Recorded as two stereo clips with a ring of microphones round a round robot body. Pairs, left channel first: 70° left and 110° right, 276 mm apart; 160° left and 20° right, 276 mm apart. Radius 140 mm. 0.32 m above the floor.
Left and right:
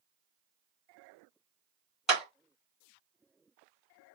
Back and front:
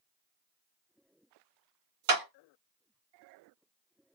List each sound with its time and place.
2.1 s a clap: 25° right, 2.5 m